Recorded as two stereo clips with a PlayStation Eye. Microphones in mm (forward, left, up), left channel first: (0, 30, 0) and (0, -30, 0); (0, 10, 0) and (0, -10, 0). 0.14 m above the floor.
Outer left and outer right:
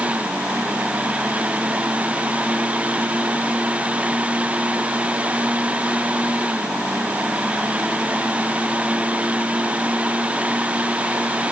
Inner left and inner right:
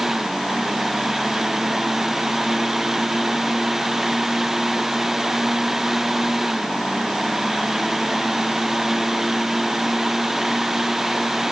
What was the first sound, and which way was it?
Only background noise.